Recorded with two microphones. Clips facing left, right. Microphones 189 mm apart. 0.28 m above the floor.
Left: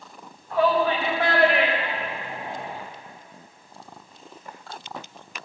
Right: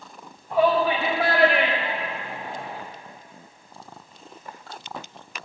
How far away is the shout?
About 1.7 m.